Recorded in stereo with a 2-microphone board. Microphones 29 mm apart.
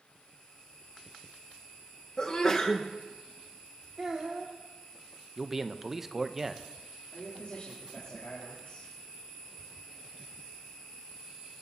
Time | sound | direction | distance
2.2 | a sneeze | 35° left (ahead or behind) | 1.2 m
4.0 | a child speaking | 30° right (ahead or behind) | 1.9 m
5.4 | a man speaking | 10° right (ahead or behind) | 0.7 m
7.1 | a man speaking | 55° left (ahead or behind) | 3 m